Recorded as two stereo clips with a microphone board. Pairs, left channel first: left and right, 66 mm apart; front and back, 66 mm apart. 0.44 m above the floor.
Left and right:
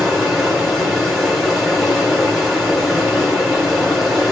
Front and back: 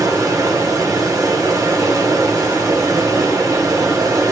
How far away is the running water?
About 2.0 m.